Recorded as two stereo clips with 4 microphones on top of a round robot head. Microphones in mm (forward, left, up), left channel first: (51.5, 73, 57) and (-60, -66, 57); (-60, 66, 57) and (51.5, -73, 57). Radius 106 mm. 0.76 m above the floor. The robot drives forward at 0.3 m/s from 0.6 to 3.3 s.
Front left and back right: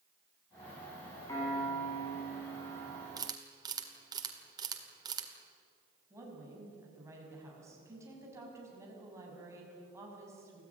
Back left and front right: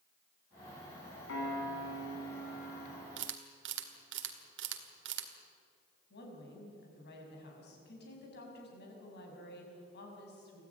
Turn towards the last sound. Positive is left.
turn(degrees=155)